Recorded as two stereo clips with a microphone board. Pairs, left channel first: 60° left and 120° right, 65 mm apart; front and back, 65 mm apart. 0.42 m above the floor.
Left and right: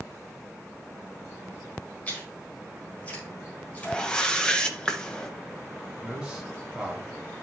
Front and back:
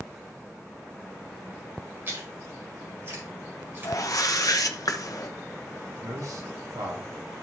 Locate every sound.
2.1 s chewing: 130° left, 4.5 m
3.8 s a whoosh: 15° right, 1.1 m
6.0 s a man speaking: 165° left, 3.5 m